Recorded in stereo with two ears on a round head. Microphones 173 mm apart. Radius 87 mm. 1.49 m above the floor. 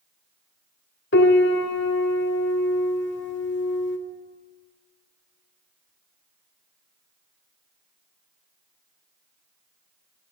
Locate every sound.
1.1 s a piano: 65° left (ahead or behind), 2.5 m